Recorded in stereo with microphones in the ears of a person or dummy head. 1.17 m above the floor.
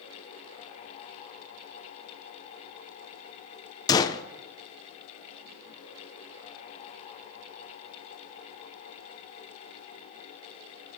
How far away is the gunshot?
About 0.5 m.